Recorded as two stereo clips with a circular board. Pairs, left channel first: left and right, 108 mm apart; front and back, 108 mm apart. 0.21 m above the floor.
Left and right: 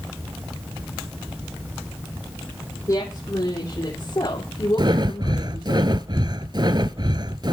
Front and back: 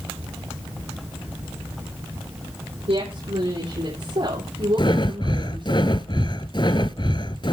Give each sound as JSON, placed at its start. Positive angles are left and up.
{"t": 2.9, "sound": "a woman speaking", "azimuth_deg": 150, "distance_m": 9.0}
{"t": 4.8, "sound": "breathing", "azimuth_deg": -40, "distance_m": 0.8}